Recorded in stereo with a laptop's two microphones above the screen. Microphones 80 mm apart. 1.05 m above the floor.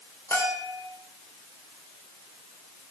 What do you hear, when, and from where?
0.3 s a bell: 35° left (ahead or behind), 4 m